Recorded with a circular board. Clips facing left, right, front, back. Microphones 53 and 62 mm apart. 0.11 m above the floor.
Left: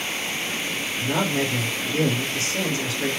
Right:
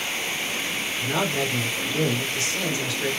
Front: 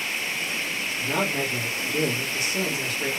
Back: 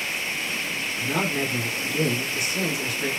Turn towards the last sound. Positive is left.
turn(degrees=85)